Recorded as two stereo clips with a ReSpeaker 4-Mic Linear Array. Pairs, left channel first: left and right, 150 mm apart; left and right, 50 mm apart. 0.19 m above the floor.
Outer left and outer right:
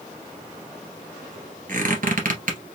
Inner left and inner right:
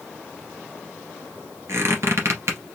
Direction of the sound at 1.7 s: 65° right (ahead or behind).